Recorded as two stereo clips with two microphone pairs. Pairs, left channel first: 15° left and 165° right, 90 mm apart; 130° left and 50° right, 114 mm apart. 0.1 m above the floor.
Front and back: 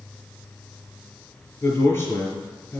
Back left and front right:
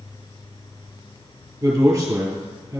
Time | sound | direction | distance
1.6 | a man speaking | 20° right | 1.7 m